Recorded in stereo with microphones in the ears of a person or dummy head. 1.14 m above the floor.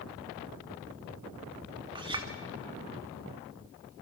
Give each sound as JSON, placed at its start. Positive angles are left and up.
{"t": 1.9, "sound": "a clink", "side_deg": -25, "distance_m": 1.4}